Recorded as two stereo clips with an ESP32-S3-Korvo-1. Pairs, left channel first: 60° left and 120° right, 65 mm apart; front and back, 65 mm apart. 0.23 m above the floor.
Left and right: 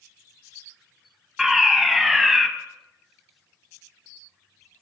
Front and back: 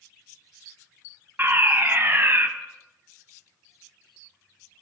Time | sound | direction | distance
1.4 | a fire alarm | 155° left | 2 m